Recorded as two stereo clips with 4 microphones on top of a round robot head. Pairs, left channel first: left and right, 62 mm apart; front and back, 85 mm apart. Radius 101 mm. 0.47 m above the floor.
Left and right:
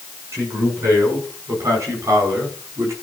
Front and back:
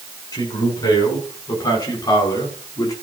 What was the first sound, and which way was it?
A man speaking, 40° right.